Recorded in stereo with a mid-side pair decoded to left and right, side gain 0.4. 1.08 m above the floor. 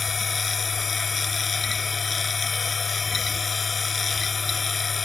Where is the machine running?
40° left.